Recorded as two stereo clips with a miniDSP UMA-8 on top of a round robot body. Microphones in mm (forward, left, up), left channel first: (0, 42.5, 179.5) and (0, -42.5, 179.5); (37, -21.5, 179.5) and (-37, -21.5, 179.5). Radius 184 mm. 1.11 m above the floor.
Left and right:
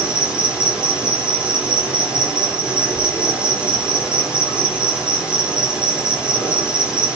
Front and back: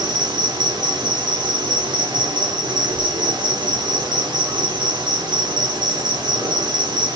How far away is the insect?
About 4.5 m.